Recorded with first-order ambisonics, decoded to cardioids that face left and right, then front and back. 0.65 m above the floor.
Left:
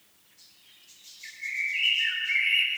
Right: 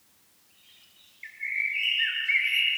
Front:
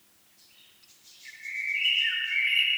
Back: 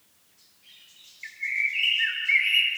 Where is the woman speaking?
No woman speaking in this recording.